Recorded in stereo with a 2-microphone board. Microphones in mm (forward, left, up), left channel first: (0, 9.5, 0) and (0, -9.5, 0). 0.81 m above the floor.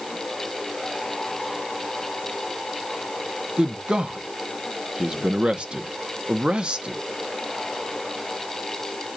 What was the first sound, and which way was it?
A man speaking, 55° right (ahead or behind).